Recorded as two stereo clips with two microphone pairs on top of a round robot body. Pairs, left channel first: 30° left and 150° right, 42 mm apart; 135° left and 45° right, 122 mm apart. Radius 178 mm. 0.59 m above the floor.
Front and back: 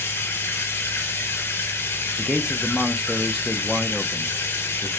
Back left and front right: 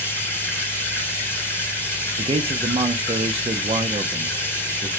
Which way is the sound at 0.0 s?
60° left.